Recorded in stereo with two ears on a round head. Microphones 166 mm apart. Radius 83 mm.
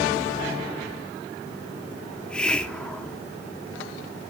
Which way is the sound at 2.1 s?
5° left (ahead or behind).